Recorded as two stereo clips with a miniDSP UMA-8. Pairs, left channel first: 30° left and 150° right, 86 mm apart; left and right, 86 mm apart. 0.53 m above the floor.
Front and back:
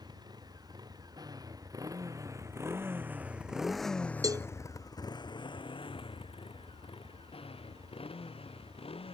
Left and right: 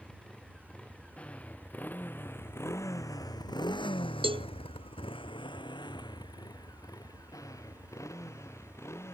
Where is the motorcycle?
170° left; by 9.1 s 30° left.